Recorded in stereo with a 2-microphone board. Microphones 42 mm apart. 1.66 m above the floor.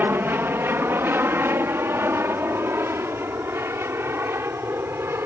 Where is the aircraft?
55° right (ahead or behind); by 5.2 s 70° right (ahead or behind).